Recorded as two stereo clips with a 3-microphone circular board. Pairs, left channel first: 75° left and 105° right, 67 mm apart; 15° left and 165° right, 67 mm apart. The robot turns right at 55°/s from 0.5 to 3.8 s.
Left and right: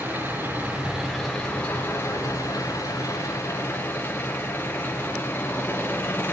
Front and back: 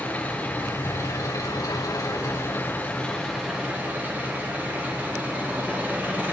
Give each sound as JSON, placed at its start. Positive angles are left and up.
{"t": 0.0, "sound": "an engine running", "azimuth_deg": -50, "distance_m": 5.5}